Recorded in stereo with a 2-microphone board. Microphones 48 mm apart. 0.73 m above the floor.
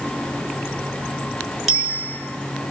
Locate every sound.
1.7 s a bicycle bell: 5° left (ahead or behind), 6 m